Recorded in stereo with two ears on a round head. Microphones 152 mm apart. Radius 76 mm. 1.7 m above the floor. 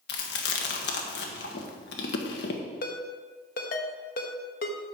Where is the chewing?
65° left (ahead or behind), 1.5 m.